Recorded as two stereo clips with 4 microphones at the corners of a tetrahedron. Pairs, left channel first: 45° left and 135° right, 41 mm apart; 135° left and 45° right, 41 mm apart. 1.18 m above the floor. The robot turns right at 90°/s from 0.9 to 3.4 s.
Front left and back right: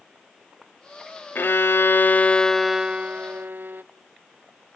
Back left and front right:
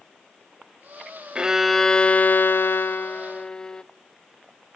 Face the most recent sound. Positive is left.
turn(degrees=-160)